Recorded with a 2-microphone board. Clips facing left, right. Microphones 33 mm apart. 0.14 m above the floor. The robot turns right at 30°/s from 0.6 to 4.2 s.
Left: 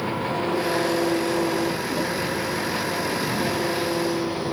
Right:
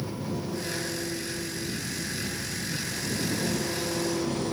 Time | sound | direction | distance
0.0 | an engine running | 50° left | ?